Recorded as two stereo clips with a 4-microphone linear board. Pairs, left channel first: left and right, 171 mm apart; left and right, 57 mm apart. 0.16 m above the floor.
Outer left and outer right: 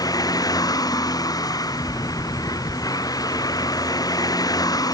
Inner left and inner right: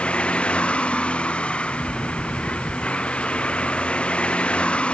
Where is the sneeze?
I don't hear a sneeze.